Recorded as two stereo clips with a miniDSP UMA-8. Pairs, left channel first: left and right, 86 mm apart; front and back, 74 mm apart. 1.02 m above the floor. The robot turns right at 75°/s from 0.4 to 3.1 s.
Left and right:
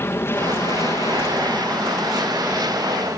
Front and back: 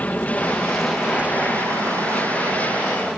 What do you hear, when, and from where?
0.0 s an aircraft: 55° left; by 3.2 s 100° right